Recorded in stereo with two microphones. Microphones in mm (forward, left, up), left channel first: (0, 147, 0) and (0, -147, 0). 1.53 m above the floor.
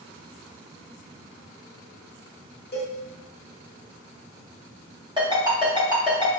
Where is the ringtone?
15° right (ahead or behind), 1.1 m.